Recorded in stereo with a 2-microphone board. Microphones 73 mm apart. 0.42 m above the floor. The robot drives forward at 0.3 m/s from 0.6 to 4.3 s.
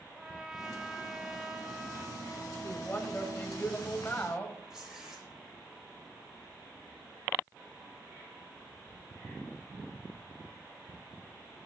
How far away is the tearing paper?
About 7 m.